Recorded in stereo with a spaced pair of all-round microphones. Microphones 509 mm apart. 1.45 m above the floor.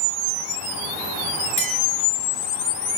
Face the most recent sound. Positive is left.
turn(degrees=60)  # may be behind; listen again after turning